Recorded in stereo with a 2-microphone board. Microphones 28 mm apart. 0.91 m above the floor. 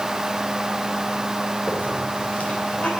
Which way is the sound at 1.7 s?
60° left (ahead or behind).